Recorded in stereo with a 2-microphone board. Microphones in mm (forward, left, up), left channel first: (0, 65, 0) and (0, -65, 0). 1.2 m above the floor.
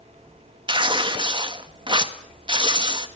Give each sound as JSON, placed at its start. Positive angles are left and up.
{"t": 0.7, "sound": "tearing paper", "side_deg": -35, "distance_m": 1.6}